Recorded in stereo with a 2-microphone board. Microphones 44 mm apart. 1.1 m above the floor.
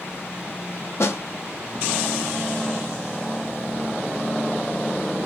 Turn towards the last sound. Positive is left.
turn(degrees=75)  # may be behind; listen again after turning